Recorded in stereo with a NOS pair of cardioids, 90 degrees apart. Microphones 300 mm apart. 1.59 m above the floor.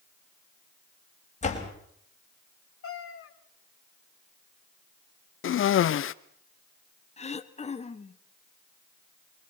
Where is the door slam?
25° left, 5.5 m.